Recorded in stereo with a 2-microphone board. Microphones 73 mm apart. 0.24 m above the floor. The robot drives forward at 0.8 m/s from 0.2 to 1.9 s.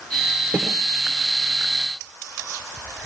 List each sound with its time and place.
0.5 s a snare drum: 30° right (ahead or behind), 4 m